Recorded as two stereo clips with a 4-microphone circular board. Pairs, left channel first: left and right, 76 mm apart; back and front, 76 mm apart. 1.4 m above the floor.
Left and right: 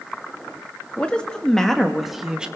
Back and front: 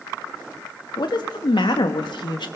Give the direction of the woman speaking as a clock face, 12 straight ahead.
6 o'clock.